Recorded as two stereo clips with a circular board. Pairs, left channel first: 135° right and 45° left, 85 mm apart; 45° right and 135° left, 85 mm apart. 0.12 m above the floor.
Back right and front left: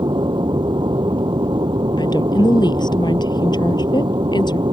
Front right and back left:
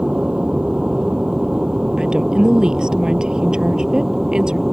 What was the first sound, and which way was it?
An aircraft, 55° left.